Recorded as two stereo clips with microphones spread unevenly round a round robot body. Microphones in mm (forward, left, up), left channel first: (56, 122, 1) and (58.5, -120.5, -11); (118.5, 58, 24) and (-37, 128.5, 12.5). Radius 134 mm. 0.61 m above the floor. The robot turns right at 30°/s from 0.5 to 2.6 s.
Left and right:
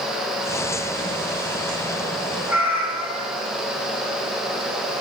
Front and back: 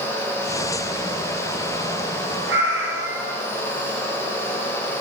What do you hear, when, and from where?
2.5 s a cat meowing: 175° right, 1.1 m; by 3.4 s 170° right, 1.1 m